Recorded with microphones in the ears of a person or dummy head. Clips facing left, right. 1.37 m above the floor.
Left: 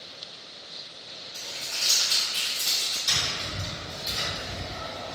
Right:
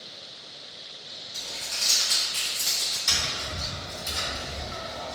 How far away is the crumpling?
About 0.7 m.